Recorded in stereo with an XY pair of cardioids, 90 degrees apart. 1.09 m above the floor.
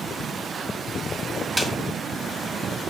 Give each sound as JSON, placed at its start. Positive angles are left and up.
{"t": 1.6, "sound": "a snare drum", "azimuth_deg": -15, "distance_m": 1.9}